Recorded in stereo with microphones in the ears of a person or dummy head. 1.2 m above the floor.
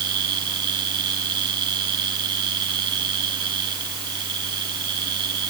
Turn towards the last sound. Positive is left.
turn(degrees=-25)  # may be behind; listen again after turning